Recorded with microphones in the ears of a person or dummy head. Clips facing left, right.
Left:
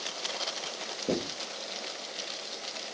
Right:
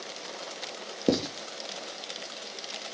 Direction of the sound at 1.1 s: 85° right.